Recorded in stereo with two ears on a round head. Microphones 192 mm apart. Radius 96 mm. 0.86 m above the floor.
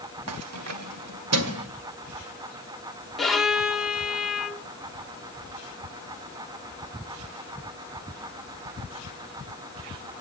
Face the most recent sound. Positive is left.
turn(degrees=0)  # may be behind; listen again after turning